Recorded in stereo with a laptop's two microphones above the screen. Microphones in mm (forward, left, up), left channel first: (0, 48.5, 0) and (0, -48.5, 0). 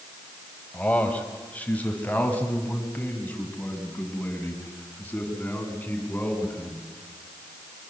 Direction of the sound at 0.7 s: 15° left (ahead or behind).